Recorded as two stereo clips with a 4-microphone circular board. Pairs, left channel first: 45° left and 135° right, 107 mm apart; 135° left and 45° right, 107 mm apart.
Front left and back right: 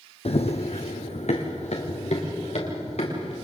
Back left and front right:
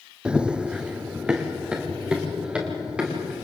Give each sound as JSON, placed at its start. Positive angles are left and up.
{"t": 0.2, "sound": "running footsteps", "azimuth_deg": 35, "distance_m": 1.1}